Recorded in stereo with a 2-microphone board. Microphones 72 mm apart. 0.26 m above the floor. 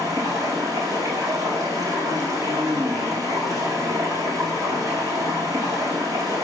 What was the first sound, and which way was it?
Running water, 55° right (ahead or behind).